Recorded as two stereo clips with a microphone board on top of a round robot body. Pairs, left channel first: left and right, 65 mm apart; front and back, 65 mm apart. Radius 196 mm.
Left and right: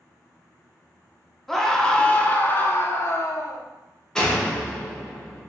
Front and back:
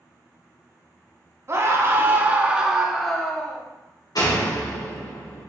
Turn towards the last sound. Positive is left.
turn(degrees=10)